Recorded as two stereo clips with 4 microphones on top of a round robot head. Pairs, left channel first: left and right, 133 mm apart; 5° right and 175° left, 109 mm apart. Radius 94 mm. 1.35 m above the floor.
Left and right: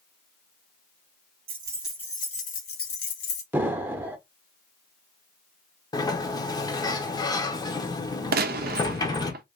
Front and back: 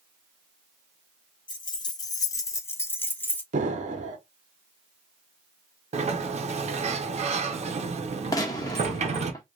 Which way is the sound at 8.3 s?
75° right.